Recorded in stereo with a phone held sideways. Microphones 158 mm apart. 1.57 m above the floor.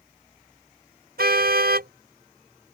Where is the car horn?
80° right.